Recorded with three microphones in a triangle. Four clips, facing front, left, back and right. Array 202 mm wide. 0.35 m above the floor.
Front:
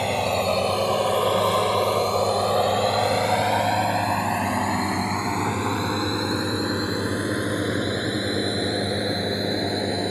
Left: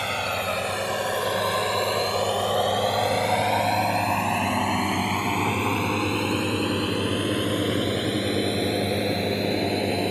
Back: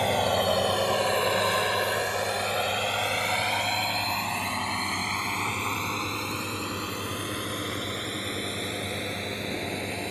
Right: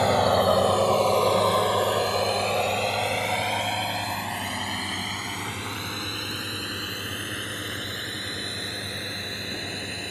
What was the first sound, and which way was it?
A drone, 85° right.